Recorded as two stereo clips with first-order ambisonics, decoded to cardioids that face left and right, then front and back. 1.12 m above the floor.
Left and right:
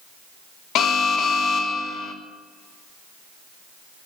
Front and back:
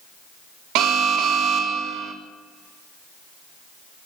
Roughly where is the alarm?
Behind left.